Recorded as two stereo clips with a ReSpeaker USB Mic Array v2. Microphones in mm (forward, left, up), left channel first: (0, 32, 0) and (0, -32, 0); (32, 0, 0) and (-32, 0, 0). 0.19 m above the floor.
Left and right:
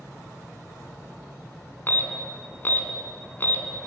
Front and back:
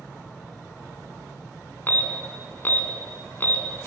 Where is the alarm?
45° left, 2.5 m.